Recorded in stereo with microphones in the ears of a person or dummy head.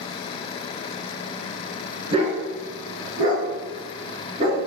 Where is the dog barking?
35° right (ahead or behind), 4.5 m; by 4.6 s 45° right (ahead or behind), 6 m.